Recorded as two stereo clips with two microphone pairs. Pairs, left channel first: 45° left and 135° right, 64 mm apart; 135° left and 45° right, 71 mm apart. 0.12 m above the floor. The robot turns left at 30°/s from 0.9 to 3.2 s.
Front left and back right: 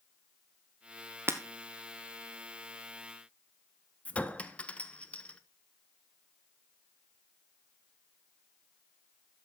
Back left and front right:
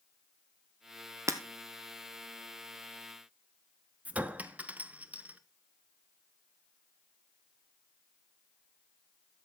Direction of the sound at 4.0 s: 5° right.